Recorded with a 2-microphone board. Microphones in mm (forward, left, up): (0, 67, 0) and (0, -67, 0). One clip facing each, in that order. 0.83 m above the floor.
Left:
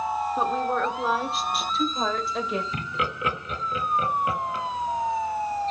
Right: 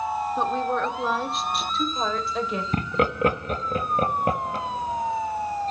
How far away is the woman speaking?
About 1.9 m.